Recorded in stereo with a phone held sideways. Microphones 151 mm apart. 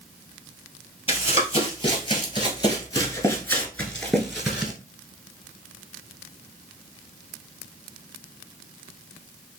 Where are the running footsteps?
40° left (ahead or behind), 2.0 m; by 4.7 s 10° right (ahead or behind), 1.4 m.